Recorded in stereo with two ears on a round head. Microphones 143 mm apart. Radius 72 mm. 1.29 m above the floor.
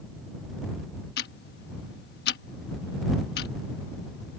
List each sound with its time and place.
1.2 s ticking: 70° left (ahead or behind)